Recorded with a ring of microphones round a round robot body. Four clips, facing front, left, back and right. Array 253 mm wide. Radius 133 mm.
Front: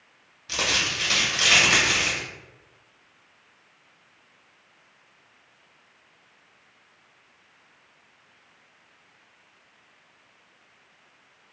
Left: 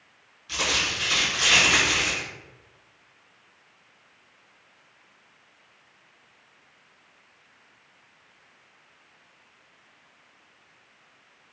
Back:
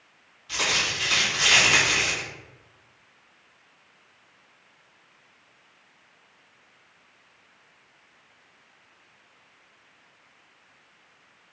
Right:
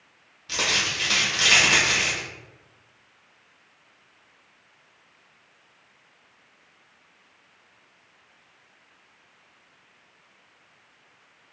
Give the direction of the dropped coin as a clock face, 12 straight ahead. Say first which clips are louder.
Even, even; 1 o'clock.